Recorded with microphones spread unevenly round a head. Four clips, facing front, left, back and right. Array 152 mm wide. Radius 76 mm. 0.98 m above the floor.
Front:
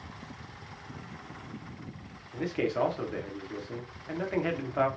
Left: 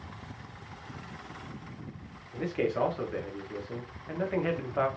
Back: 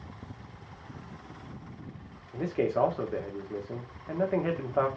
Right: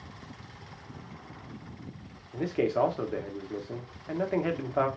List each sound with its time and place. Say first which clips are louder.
2.3 s a man speaking: right 2 dB, back 2 dB; 130° right, 1.0 m